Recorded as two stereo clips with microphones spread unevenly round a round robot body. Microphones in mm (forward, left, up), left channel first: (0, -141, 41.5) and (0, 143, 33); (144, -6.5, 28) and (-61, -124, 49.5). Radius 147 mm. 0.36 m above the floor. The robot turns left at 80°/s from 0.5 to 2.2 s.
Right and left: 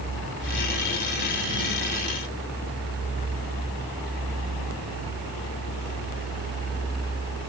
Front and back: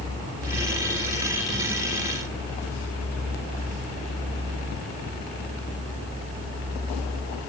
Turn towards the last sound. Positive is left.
No sound to turn to.